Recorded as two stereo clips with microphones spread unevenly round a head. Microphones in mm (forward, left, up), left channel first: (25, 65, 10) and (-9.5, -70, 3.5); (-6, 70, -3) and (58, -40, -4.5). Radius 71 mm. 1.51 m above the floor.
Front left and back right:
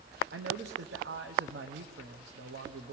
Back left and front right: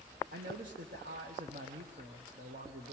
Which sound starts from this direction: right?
A man speaking, at 0.3 s.